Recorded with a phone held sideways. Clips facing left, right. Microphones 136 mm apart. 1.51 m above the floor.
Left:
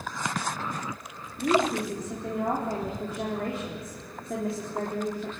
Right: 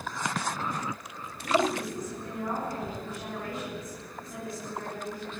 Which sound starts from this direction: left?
A woman speaking, at 1.4 s.